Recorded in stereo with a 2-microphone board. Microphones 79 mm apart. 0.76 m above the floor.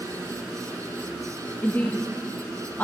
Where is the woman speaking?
25° left (ahead or behind), 0.7 m.